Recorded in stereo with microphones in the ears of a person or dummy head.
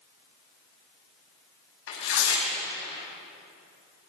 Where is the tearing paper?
65° left (ahead or behind), 6.5 m.